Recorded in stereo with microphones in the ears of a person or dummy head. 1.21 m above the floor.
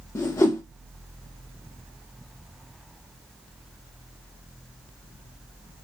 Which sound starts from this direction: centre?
A whoosh, at 0.1 s.